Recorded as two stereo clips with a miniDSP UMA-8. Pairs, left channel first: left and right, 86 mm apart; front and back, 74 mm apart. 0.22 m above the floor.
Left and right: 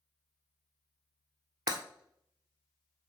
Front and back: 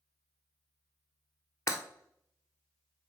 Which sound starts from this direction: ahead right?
Breaking glass, at 1.7 s.